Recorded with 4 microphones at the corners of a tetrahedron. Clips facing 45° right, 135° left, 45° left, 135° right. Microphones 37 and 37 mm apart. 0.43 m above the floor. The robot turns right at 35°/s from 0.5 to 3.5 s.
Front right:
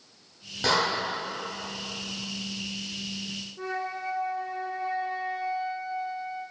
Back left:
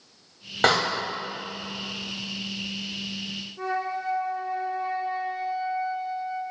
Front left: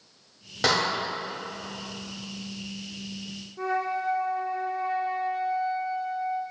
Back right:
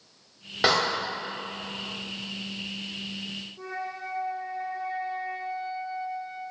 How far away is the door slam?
About 1.6 m.